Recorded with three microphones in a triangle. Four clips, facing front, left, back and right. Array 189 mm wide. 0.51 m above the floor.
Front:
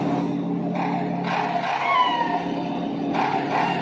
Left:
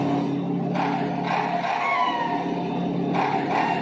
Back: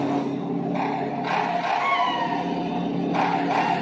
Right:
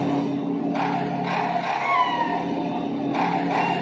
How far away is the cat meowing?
About 0.5 m.